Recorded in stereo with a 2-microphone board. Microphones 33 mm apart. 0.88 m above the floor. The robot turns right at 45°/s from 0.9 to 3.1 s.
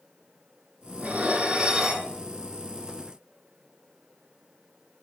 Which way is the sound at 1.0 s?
60° right.